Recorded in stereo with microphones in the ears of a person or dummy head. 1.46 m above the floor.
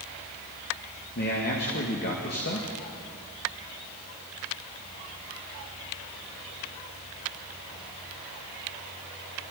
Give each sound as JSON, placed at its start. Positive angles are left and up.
{"t": 1.1, "sound": "a man speaking", "side_deg": 45, "distance_m": 2.5}